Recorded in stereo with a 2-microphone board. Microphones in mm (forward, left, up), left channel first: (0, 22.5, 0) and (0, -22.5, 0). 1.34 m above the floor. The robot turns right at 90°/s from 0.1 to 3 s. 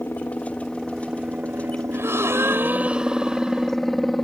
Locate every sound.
0.0 s a helicopter: 55° left (ahead or behind); by 4.2 s centre (ahead or behind)
1.9 s a gasp: 120° right; by 3.7 s 20° right